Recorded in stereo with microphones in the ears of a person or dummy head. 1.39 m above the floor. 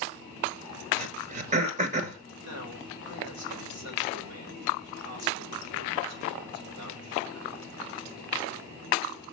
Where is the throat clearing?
40° right (ahead or behind), 1.3 m.